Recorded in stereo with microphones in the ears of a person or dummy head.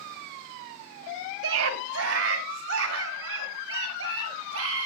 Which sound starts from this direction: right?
A scream, at 1.4 s.